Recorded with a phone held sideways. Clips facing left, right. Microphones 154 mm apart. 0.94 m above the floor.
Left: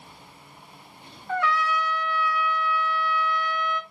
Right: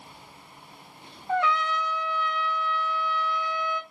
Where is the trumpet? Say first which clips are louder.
Even; 20° right (ahead or behind), 1.9 m.